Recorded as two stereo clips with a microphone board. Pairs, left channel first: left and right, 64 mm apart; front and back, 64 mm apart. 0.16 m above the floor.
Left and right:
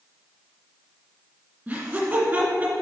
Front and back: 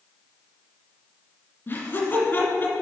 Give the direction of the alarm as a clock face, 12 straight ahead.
No alarm in this recording.